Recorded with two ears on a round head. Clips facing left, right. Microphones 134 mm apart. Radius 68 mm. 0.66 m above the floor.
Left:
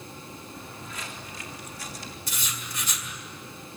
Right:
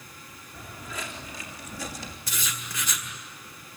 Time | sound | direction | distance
0.5 | footsteps | 60° right (ahead or behind) | 3.5 m
2.3 | writing | 65° right (ahead or behind) | 2.0 m